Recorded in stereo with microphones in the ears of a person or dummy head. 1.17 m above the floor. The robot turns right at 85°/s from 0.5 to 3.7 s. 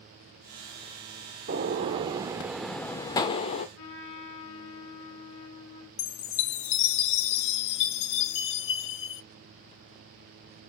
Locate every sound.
1.5 s a gunshot: 105° right, 0.9 m; by 3.7 s 80° left, 0.9 m
3.8 s a trumpet: 70° left (ahead or behind), 2 m
6.0 s a chime: 60° left (ahead or behind), 0.8 m